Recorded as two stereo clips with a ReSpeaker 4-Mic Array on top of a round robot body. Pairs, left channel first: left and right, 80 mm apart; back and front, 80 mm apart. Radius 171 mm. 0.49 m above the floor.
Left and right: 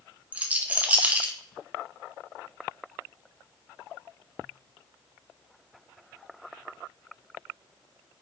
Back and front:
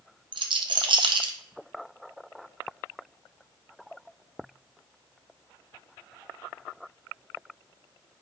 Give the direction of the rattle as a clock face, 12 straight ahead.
1 o'clock.